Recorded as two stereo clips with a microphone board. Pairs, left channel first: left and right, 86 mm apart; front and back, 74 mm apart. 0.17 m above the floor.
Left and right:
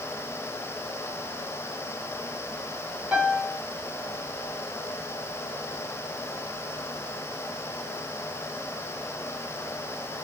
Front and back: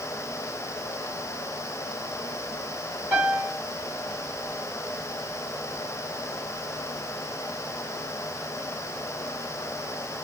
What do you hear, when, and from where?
3.1 s a piano: 150° right, 1.8 m